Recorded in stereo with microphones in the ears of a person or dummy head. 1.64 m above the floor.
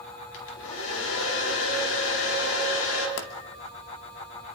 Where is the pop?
55° left (ahead or behind), 1.8 m.